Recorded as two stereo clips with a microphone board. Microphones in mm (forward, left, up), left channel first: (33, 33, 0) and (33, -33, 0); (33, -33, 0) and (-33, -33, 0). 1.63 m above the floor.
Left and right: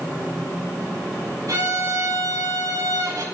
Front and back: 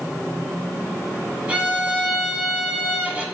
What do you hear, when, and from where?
1.5 s a violin: 110° right, 3.5 m